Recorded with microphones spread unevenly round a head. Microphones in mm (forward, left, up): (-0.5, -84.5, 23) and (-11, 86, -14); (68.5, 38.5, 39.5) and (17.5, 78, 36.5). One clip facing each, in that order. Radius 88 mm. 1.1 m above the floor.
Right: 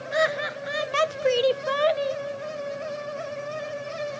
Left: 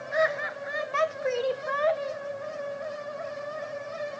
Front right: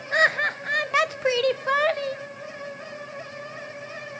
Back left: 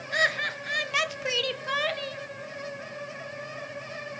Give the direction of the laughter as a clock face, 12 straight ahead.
2 o'clock.